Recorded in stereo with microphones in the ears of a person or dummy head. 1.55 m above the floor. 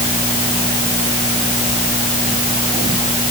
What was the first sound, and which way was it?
Only background noise.